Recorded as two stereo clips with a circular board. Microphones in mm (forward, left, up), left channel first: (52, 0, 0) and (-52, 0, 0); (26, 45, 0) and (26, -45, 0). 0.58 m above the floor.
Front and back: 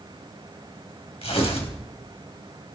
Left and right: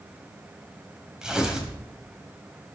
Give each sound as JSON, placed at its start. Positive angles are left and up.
{"t": 1.2, "sound": "tearing paper", "azimuth_deg": -10, "distance_m": 3.5}